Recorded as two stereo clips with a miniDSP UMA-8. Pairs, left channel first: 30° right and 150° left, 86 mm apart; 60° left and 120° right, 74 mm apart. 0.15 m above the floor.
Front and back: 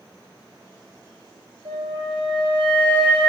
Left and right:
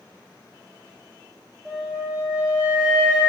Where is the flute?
165° left, 0.6 m.